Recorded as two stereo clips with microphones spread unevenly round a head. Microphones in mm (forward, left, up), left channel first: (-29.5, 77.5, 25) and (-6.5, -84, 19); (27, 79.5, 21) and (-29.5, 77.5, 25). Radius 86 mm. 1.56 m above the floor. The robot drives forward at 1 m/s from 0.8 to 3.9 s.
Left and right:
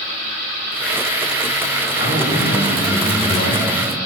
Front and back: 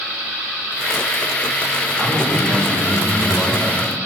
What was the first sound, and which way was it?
A man speaking, 100° left.